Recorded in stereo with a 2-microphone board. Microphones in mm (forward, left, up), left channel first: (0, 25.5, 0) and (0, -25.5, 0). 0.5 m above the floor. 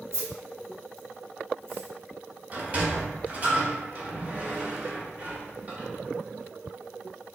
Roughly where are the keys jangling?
Right.